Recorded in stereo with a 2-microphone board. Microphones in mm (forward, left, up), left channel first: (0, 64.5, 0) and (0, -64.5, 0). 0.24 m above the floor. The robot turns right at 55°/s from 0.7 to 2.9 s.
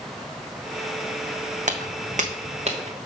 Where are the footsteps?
70° right (ahead or behind), 0.6 m; by 3.1 s 55° right (ahead or behind), 1.4 m.